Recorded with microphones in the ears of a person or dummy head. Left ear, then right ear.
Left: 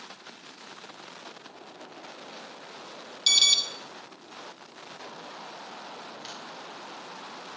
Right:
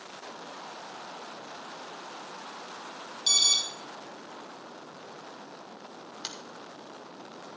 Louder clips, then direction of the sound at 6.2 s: Right 5 dB; 25° right (ahead or behind).